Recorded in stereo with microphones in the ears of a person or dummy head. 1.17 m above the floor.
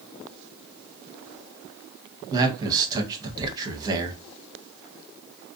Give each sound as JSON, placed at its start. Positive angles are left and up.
{"t": 2.3, "sound": "a man speaking", "side_deg": -25, "distance_m": 0.8}